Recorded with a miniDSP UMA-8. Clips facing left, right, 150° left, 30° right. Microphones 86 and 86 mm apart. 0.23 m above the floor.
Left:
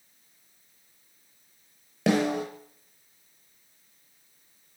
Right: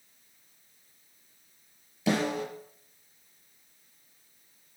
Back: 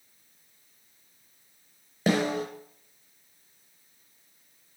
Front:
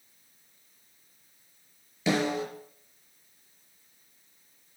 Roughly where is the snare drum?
Left.